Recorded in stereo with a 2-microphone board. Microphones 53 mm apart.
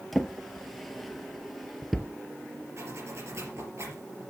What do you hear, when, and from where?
0.1 s a drawer: centre (ahead or behind), 0.9 m
2.8 s a zipper: 60° right (ahead or behind), 4 m